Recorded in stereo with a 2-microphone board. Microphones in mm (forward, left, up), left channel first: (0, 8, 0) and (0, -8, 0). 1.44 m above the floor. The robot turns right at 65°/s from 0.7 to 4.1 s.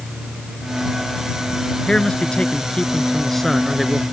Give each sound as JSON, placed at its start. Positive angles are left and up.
{"t": 1.9, "sound": "a man speaking", "azimuth_deg": 55}